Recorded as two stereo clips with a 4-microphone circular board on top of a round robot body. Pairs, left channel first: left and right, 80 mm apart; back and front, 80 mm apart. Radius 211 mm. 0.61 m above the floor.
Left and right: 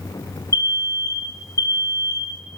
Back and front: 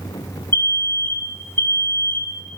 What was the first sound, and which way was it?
An alarm, 125° left.